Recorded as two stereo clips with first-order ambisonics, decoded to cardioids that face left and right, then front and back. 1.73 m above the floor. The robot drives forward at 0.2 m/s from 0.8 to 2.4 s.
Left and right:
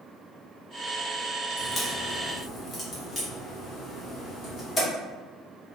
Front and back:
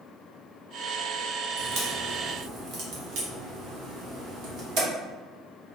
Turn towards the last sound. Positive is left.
turn(degrees=160)